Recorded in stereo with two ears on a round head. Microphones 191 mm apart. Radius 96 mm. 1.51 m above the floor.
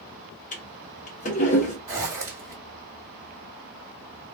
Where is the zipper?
15° right (ahead or behind), 1.5 m.